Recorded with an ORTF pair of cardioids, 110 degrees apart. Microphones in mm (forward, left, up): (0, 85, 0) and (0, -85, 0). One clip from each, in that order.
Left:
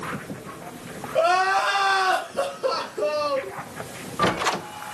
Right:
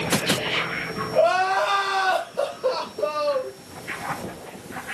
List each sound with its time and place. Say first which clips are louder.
1.1 s crying: even; 60° left, 1.5 m